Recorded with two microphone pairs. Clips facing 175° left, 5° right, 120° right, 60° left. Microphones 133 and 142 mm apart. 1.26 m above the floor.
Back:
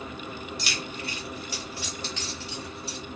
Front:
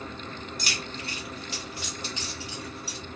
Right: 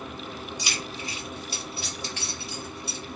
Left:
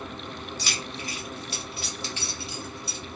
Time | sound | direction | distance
0.6 | keys jangling | 45° right | 1.3 m